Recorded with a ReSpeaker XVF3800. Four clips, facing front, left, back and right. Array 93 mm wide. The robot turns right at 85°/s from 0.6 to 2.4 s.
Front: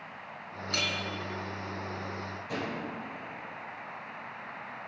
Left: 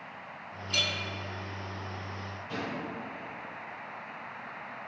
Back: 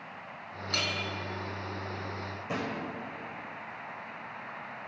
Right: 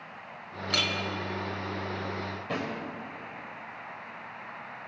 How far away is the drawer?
About 1.4 m.